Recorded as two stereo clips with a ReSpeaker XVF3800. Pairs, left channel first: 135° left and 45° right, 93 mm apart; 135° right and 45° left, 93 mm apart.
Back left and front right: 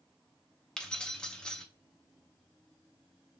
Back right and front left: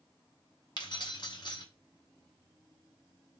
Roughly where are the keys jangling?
Behind right.